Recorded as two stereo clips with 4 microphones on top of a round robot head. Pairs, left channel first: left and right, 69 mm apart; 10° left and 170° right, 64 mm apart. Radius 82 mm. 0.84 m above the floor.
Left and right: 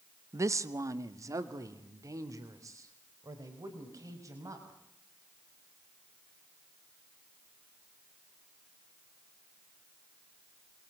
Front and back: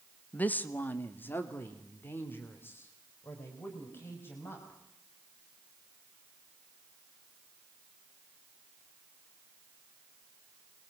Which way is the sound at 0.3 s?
55° right.